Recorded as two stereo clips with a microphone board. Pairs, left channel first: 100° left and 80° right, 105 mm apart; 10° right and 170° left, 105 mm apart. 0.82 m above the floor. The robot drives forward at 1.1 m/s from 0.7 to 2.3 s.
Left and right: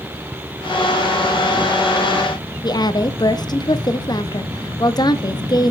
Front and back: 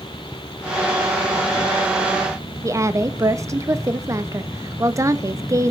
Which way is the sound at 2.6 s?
120° left.